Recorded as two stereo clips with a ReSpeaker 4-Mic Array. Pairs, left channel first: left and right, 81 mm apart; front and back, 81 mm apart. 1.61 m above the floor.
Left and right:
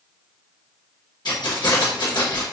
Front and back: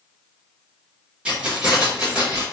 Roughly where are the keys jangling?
Left.